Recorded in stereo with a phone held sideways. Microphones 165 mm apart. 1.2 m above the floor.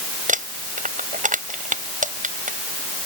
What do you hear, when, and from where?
0.3 s crumpling: 55° right (ahead or behind)